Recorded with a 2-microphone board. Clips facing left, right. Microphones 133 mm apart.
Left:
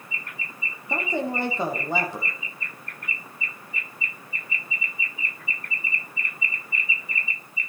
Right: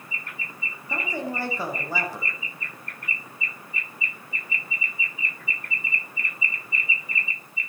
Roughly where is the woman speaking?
Left.